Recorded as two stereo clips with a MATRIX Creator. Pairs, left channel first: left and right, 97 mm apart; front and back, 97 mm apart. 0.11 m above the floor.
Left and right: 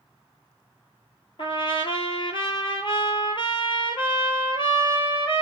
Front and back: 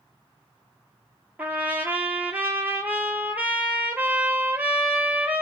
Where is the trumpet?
110° left, 0.6 m.